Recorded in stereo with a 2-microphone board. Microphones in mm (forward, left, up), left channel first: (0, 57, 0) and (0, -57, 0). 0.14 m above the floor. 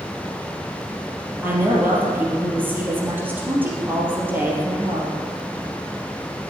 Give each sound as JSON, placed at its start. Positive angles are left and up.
{"t": 1.4, "sound": "a woman speaking", "side_deg": -15, "distance_m": 3.0}